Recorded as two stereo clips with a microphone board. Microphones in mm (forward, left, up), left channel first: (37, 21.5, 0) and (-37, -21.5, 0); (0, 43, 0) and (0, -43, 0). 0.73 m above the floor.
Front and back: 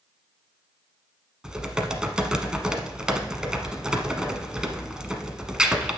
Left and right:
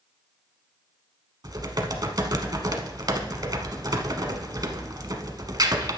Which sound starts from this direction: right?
Typing on a keyboard, at 1.4 s.